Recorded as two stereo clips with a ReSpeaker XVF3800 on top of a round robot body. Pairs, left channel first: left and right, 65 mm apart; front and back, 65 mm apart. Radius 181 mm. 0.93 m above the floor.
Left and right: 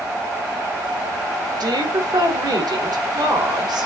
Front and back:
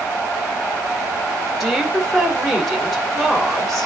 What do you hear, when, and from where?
1.6 s a woman speaking: 90° right, 2.5 m